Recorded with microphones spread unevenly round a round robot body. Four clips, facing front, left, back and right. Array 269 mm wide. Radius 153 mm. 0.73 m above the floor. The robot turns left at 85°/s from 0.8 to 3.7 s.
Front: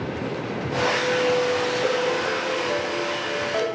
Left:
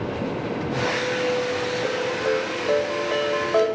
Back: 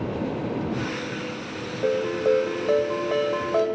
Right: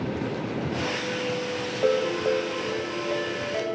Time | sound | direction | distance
1.8 | a ringtone | 125° right | 1.8 m